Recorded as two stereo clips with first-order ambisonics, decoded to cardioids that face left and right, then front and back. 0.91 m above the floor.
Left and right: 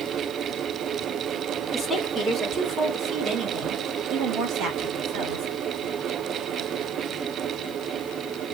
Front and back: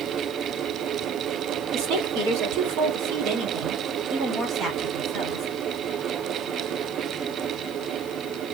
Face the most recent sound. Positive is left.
turn(degrees=-100)